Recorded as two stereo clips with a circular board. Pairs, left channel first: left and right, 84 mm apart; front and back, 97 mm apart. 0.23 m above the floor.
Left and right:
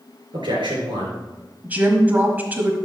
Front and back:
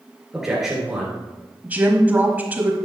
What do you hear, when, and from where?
0.3 s a man speaking: 95° right, 3.5 m
1.6 s a woman speaking: 130° right, 1.2 m